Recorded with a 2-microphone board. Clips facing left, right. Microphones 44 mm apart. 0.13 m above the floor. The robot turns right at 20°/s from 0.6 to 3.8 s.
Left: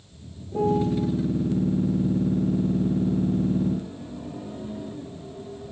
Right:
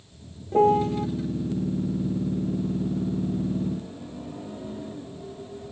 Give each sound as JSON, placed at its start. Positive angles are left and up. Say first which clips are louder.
{"t": 0.5, "sound": "a piano", "louder": "right 3 dB", "side_deg": -55, "distance_m": 1.0}